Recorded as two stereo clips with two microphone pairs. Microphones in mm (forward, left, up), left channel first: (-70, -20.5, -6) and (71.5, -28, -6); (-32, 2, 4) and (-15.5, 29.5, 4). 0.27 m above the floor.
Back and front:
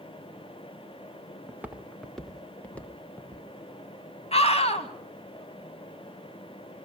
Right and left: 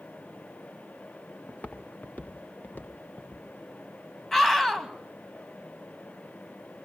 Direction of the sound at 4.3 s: 160° left.